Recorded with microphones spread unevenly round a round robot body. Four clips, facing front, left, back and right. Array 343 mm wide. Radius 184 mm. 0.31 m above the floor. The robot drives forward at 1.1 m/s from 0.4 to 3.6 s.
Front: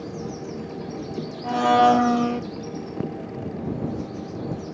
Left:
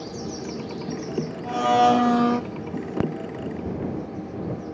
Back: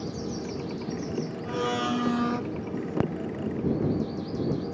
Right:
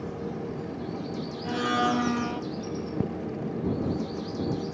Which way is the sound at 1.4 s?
20° left.